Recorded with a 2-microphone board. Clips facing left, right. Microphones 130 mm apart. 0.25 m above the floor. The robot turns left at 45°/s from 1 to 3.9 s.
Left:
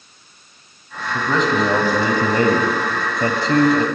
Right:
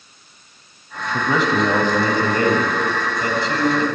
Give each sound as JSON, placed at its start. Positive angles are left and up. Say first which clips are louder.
{"t": 1.1, "sound": "a man speaking", "louder": "even", "azimuth_deg": -160, "distance_m": 1.2}